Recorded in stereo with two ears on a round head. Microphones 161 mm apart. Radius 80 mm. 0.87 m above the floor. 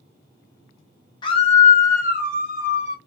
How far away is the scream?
About 0.7 m.